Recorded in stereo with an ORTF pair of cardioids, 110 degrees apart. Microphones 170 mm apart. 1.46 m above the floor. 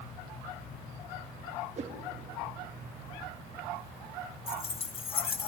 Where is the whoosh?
40° right, 2 m.